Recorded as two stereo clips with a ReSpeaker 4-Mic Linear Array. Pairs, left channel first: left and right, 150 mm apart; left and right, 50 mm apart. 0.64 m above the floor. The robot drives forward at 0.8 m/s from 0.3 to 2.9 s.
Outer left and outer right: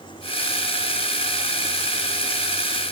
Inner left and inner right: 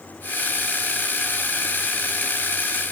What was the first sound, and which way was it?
Only background noise.